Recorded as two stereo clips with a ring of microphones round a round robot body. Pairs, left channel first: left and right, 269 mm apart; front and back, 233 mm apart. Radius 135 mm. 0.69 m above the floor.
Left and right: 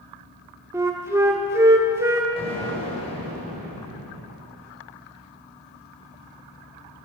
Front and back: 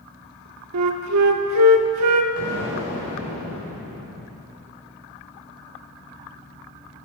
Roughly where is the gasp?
I don't hear a gasp.